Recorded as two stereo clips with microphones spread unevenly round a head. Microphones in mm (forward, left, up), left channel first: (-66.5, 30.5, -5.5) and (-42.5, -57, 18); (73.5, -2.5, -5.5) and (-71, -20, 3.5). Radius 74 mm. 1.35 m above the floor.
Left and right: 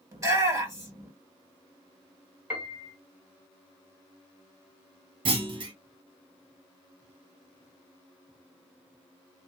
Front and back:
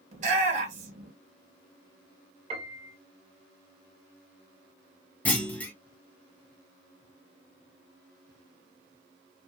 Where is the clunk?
75° right, 1.2 m.